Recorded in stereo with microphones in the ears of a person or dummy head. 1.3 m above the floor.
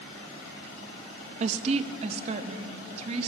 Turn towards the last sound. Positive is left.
turn(degrees=-35)  # may be behind; listen again after turning